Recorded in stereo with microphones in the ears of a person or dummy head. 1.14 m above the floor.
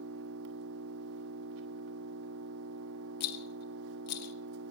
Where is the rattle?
55° left (ahead or behind), 0.8 m.